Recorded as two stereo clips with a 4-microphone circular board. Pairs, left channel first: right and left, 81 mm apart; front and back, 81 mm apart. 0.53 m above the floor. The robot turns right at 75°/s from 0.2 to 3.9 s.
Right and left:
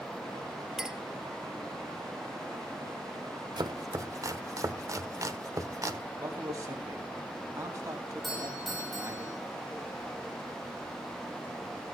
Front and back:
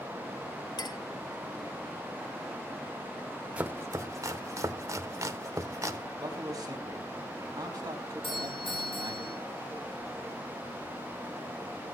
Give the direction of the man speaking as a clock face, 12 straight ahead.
7 o'clock.